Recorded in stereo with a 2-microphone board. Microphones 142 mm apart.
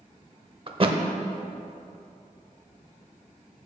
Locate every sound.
0.7 s a thud: 40° right (ahead or behind), 0.6 m